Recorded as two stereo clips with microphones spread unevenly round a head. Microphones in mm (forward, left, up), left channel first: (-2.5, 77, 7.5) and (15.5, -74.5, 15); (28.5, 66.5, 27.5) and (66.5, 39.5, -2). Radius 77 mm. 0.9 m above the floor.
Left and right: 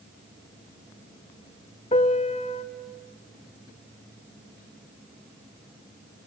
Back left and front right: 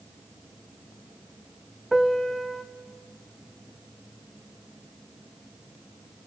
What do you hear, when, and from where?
1.9 s a piano: 120° left, 0.6 m